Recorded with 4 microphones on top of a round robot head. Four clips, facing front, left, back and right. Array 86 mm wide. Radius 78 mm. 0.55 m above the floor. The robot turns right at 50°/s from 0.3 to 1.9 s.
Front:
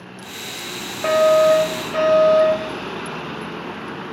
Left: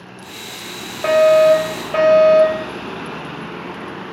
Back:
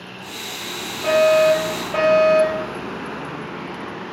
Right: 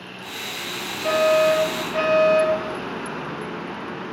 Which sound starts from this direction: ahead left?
A fire alarm, at 1.0 s.